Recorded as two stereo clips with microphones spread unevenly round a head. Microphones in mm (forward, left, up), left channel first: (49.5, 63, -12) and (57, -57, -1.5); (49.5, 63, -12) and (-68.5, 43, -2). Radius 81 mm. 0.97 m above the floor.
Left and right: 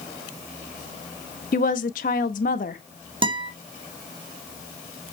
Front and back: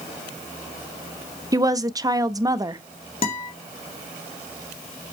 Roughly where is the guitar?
Ahead right.